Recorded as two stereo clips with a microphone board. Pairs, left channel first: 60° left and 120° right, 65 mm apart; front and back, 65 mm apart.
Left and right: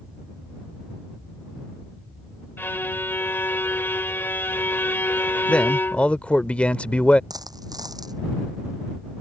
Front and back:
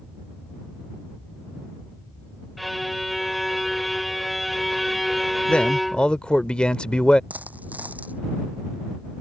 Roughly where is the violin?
Left.